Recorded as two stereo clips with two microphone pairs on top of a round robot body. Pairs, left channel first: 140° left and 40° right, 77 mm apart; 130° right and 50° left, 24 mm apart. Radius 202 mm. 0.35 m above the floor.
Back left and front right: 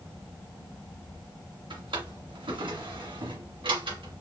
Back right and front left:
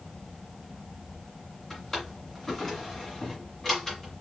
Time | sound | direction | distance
1.7 | a drawer | 50° right | 1.7 m